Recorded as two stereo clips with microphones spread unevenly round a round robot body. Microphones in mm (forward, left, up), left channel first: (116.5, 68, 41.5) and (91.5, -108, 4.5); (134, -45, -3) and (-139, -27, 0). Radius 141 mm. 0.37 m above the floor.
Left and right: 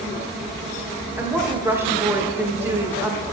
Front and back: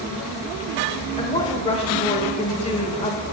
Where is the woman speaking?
55° right, 0.9 m.